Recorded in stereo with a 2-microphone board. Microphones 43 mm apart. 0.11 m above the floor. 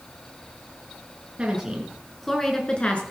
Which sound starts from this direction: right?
A woman speaking, at 1.4 s.